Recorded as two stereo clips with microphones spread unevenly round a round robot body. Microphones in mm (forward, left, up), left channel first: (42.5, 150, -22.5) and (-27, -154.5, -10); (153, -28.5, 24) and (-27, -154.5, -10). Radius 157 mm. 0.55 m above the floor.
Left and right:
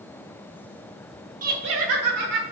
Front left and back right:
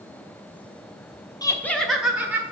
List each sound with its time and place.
1.4 s laughter: 40° right, 1.2 m; by 2.4 s 65° right, 2.5 m